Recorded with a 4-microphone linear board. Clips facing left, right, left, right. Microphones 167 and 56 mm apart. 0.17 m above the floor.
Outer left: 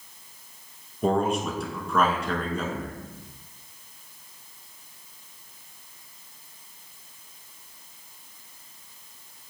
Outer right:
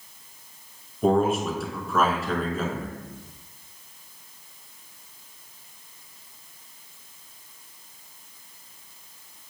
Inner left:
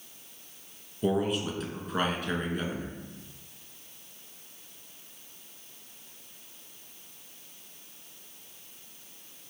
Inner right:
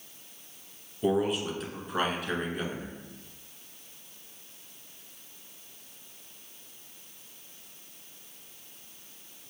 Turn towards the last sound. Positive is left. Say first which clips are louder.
# outer right 3 dB, inner right 1 dB
turn(degrees=0)  # may be behind; listen again after turning